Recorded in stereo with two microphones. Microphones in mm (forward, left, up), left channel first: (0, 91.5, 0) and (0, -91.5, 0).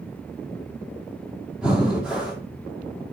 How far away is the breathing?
About 3 m.